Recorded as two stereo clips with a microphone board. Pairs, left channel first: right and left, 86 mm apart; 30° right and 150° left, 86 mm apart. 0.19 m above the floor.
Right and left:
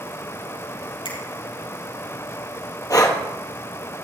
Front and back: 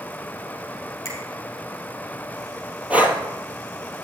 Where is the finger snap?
90° right, 5.5 m.